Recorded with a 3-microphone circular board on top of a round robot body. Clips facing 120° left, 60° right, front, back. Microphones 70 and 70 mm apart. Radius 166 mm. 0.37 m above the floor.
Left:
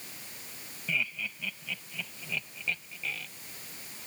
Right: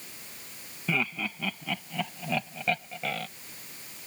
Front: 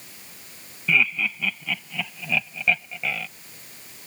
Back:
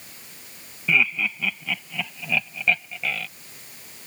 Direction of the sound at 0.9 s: 95° right.